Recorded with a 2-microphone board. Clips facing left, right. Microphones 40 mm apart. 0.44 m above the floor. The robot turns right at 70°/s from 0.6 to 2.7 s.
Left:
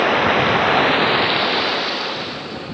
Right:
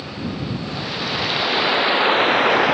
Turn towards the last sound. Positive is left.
turn(degrees=-100)